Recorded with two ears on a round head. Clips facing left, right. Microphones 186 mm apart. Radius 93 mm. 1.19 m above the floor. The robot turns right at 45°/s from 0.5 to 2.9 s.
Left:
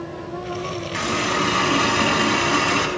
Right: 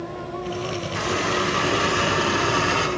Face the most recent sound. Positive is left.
turn(degrees=115)